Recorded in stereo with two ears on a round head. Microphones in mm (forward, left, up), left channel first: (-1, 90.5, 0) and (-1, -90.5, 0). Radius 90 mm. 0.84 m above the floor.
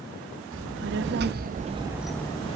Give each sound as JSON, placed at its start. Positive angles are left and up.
{"t": 0.5, "sound": "a child speaking", "side_deg": -65, "distance_m": 1.1}